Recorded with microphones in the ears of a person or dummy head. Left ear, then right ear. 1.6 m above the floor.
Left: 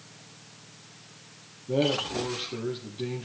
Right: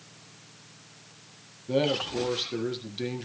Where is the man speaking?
55° right (ahead or behind), 2 m.